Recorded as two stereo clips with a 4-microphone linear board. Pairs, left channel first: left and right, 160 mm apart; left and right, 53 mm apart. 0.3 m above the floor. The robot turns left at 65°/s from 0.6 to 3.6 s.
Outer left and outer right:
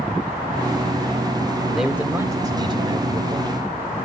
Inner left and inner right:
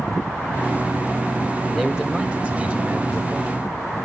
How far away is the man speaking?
About 1.0 m.